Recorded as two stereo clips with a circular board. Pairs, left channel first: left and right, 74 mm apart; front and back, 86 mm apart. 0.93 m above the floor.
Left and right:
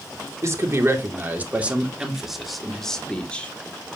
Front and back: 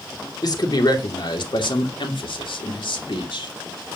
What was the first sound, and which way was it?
A man speaking, 40° right.